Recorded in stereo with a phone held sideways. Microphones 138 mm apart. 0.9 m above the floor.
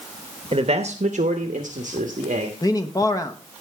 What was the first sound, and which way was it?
A man speaking, 45° right (ahead or behind).